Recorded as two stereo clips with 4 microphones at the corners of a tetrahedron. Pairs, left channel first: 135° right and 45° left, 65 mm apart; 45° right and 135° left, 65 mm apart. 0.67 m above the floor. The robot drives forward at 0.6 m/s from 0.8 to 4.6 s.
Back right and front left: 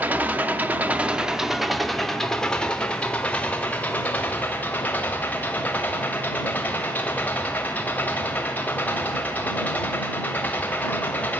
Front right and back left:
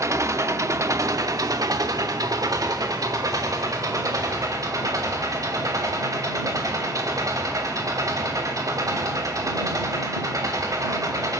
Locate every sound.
0.0 s an engine running: 105° left, 1.0 m; by 11.4 s 160° left, 2.5 m